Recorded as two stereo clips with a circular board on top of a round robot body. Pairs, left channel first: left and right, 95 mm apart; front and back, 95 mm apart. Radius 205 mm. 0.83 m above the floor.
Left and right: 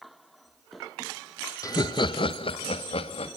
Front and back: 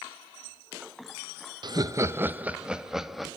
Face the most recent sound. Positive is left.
turn(degrees=90)